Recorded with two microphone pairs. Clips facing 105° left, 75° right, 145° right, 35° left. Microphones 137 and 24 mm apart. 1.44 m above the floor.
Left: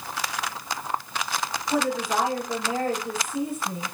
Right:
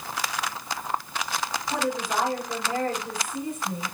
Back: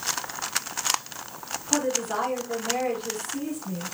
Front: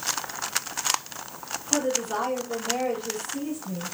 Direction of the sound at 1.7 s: 170° right.